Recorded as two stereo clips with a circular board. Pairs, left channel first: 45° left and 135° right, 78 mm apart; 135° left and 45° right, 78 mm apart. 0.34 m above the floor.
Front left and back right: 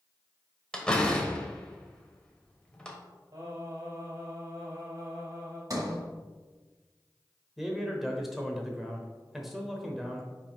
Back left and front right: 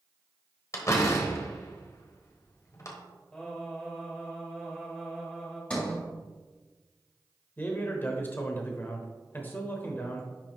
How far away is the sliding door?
About 1.7 m.